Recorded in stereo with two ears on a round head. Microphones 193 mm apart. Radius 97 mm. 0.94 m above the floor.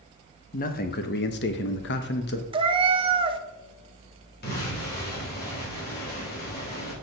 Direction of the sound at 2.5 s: 25° right (ahead or behind).